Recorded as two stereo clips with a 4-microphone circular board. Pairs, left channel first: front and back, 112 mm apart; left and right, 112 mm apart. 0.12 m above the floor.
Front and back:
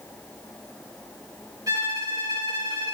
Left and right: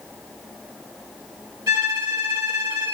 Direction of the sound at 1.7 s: 140° right.